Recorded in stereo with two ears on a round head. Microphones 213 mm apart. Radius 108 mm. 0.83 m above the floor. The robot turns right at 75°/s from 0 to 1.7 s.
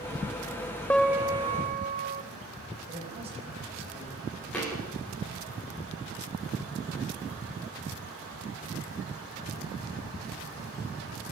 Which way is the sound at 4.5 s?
5° left (ahead or behind).